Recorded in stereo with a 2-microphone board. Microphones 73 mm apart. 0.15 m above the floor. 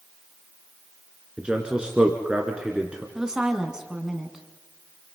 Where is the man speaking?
10° right (ahead or behind), 2 m.